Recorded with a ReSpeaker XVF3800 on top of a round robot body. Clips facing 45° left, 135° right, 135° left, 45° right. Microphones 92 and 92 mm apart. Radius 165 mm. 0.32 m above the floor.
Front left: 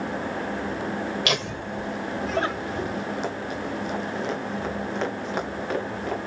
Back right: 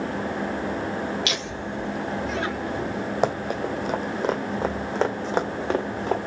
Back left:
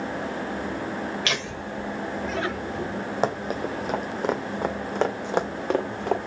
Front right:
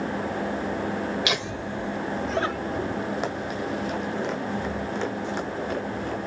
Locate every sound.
1.2 s laughter: 30° left, 2.5 m; by 3.0 s 5° right, 3.5 m
3.2 s running footsteps: 170° right, 1.4 m; by 6.2 s 160° left, 2.5 m